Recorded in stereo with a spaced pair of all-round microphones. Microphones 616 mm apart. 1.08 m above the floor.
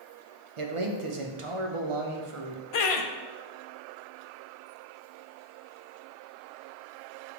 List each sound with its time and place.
0.6 s a man speaking: 55° right (ahead or behind), 0.7 m
2.7 s laughter: 60° left (ahead or behind), 0.6 m